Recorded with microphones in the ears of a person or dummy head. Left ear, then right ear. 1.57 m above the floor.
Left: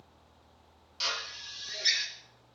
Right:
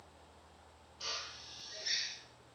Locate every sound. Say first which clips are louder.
1.0 s a drill: left 8 dB; 55° left (ahead or behind), 1.3 m